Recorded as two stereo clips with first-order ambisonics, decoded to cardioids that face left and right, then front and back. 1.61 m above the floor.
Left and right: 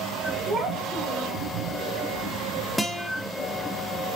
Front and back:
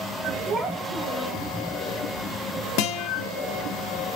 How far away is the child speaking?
About 0.8 m.